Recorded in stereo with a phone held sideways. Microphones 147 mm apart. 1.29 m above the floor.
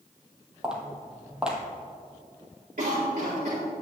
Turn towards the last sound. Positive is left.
turn(degrees=-75)  # may be behind; listen again after turning